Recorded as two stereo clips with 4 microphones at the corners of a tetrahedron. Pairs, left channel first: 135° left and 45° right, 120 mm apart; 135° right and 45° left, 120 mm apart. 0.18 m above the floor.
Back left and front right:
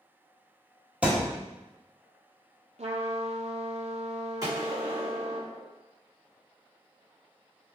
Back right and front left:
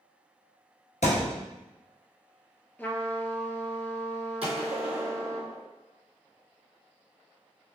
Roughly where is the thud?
Behind right.